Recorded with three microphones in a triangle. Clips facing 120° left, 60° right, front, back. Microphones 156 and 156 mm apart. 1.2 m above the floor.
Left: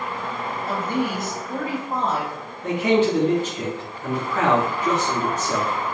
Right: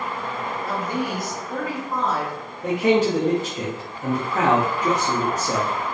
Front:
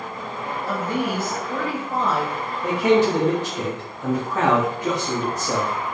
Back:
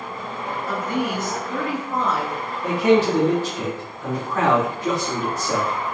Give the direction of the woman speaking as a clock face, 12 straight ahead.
10 o'clock.